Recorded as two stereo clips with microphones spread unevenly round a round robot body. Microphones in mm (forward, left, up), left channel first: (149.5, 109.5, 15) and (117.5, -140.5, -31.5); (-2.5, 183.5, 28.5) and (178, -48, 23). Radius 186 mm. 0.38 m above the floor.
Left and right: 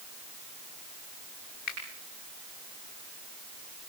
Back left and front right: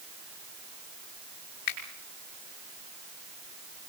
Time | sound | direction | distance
1.7 | a finger snap | 150° left | 5.5 m